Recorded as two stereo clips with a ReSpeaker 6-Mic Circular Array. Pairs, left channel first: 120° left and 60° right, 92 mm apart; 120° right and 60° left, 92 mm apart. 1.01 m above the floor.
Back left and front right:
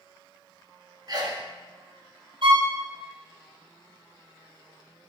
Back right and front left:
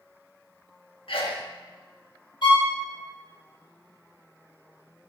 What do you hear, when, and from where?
1.1 s a sneeze: 105° right, 1.5 m
2.4 s a violin: 85° right, 3 m